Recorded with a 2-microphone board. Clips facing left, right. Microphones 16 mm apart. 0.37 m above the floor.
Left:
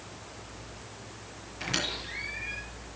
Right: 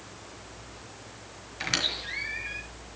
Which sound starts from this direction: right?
A squeak, at 1.6 s.